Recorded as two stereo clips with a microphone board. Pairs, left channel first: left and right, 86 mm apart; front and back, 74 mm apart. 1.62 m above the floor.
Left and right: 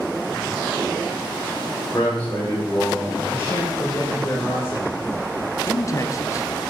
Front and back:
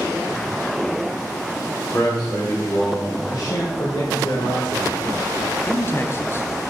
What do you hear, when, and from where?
1.9 s a man speaking: 20° left, 5 m
3.3 s a man speaking: 25° left, 1.9 m
5.7 s a man speaking: 45° left, 0.8 m